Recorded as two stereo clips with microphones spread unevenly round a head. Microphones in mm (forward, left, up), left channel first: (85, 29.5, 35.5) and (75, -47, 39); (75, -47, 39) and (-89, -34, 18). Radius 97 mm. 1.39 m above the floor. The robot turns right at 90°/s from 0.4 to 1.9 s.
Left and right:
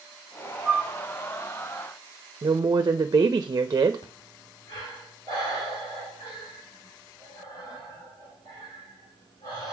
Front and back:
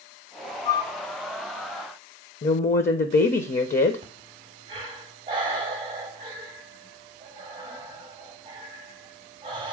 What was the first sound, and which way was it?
A flute, 45° right.